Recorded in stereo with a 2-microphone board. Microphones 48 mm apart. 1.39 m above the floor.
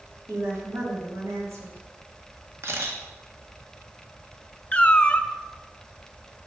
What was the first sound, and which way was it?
A woman speaking, 75° right (ahead or behind).